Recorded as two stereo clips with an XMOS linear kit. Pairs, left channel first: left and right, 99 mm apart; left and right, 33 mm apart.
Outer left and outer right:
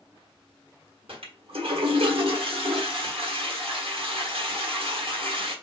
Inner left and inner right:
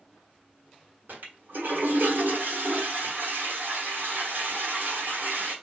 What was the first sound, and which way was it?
A toilet flushing, 70° right (ahead or behind).